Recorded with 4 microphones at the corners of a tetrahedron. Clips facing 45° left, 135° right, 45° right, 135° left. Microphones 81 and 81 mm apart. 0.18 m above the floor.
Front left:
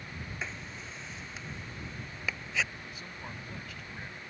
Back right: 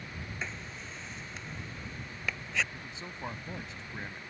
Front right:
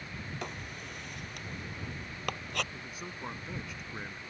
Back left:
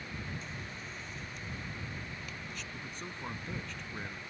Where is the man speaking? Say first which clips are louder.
Back right 1 dB, even; 115° right.